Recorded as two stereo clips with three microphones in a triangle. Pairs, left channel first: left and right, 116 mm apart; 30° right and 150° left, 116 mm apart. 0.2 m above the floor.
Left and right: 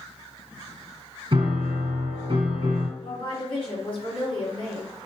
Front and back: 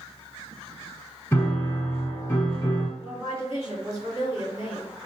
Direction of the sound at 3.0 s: 100° left.